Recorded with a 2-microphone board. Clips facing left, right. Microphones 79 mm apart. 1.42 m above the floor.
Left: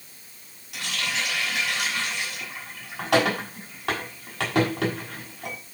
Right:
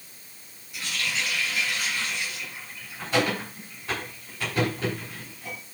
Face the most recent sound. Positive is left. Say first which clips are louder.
# left 1 dB
turn(degrees=70)  # may be behind; listen again after turning